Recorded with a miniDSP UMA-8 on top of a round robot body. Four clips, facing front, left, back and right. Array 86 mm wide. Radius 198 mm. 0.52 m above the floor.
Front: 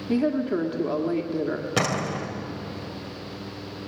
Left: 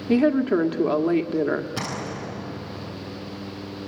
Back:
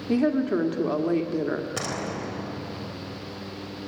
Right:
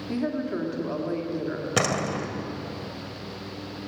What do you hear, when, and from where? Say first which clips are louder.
0.1 s a woman speaking: left 9 dB, back 1 dB; 100° left, 1.9 m
1.8 s a door slam: right 5 dB, front 5 dB; 55° right, 3 m